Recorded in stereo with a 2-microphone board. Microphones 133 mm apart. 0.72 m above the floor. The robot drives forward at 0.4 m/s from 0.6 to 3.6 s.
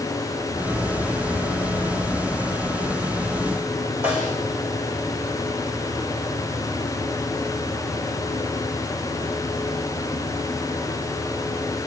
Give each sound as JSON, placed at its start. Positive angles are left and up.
{"t": 4.0, "sound": "a snare drum", "side_deg": -10, "distance_m": 9.0}